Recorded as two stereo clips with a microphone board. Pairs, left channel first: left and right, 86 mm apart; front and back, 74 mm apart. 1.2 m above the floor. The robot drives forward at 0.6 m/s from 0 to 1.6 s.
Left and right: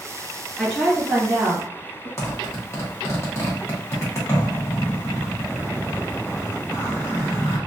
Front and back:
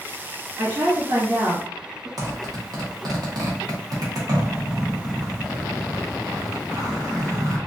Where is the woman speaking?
Straight behind, 1.8 m.